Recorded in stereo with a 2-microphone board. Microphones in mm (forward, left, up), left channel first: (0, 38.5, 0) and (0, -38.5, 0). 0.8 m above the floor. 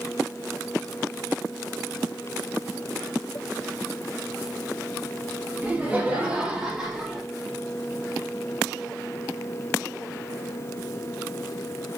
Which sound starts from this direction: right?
Laughter, at 5.6 s.